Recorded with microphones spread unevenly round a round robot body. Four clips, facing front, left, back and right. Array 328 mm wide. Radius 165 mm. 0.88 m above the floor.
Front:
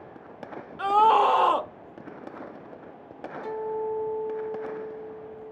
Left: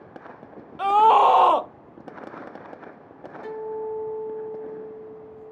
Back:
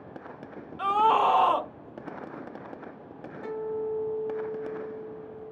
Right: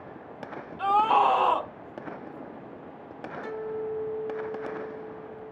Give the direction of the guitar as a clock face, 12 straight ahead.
6 o'clock.